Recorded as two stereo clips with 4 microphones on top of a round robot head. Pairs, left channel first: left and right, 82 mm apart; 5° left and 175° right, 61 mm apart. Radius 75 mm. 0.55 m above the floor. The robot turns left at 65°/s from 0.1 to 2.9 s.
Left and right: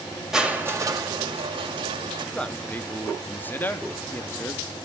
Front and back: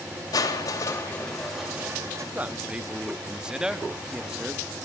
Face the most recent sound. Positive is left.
turn(degrees=125)